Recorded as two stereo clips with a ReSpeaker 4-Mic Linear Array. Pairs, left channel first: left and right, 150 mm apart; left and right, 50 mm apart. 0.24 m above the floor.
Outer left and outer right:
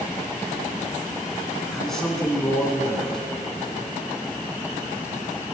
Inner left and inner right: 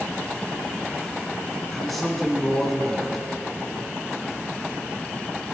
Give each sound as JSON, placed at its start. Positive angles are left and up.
{"t": 1.7, "sound": "a man speaking", "side_deg": 0, "distance_m": 1.9}